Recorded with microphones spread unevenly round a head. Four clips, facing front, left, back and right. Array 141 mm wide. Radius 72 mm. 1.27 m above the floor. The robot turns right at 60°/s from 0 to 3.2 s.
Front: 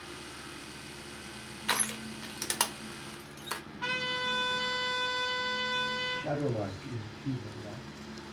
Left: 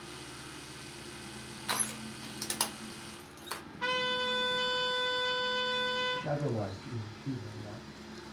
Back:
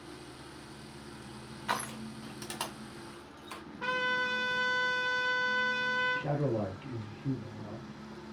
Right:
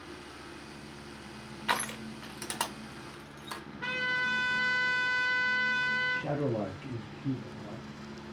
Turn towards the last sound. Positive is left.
turn(degrees=-110)